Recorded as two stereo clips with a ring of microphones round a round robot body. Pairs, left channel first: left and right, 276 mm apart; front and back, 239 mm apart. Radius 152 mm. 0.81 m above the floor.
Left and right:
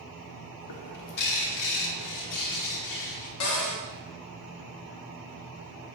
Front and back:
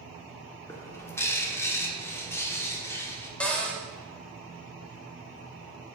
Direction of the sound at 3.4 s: 85° left.